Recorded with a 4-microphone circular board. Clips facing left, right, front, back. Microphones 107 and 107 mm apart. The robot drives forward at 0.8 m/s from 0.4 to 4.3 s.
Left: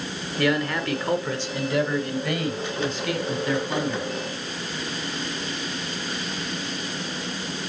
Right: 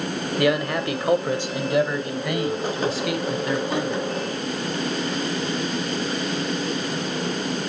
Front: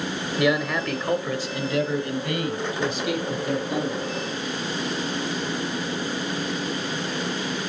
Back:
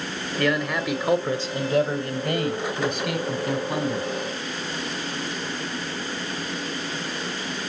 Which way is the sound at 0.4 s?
45° right.